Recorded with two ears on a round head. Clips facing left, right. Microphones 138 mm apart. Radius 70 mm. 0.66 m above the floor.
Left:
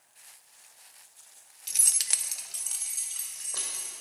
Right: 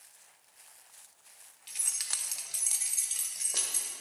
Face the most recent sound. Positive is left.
turn(degrees=-25)  # may be behind; listen again after turning